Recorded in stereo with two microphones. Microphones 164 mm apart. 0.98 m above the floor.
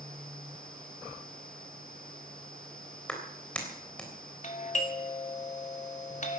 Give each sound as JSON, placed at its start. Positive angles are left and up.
{"t": 3.1, "sound": "a clap", "side_deg": 5, "distance_m": 3.5}
{"t": 4.4, "sound": "a doorbell", "side_deg": 50, "distance_m": 2.0}